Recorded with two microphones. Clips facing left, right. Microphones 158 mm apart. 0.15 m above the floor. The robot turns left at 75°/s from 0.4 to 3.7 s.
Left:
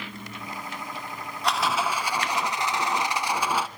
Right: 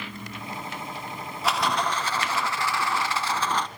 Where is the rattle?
5° right (ahead or behind), 1.1 m; by 3.7 s 5° left (ahead or behind), 1.1 m.